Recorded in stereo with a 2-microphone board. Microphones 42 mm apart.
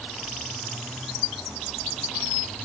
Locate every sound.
Only background noise.